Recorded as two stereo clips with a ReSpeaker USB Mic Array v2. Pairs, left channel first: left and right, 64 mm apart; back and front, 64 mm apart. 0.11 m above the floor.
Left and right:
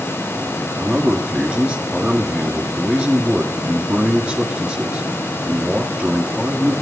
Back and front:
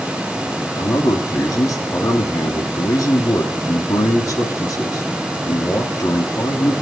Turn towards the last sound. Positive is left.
turn(degrees=-165)